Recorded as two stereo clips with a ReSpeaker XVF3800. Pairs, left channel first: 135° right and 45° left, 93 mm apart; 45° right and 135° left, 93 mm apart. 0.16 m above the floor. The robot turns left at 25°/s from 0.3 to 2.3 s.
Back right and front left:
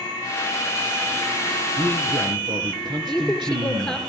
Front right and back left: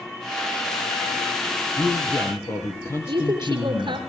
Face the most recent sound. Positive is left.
turn(degrees=145)